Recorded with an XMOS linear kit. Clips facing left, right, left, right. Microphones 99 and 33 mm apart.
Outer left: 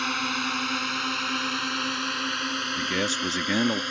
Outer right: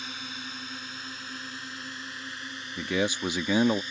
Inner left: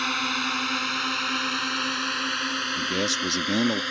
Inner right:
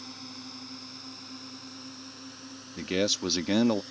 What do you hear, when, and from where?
0.0 s a drone: 75° left (ahead or behind); by 3.9 s 70° left (ahead or behind)
2.8 s a man speaking: 10° right (ahead or behind)